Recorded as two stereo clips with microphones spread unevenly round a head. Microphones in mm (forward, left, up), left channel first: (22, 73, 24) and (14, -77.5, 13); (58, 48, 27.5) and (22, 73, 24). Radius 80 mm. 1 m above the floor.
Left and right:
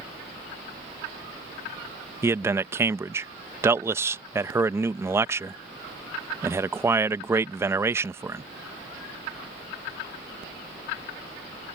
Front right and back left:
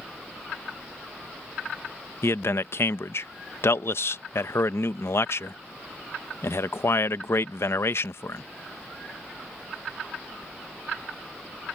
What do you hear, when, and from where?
2.2 s a man speaking: 25° right